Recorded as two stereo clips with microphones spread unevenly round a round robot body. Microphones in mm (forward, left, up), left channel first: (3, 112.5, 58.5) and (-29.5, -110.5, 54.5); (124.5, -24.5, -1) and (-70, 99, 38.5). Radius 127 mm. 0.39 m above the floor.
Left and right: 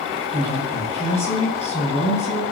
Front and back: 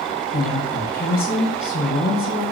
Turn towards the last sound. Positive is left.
turn(degrees=20)